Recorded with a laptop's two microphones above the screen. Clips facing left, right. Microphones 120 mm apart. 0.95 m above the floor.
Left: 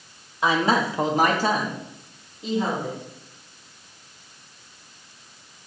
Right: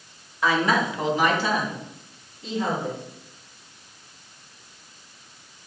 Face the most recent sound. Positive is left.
turn(degrees=20)  # may be behind; listen again after turning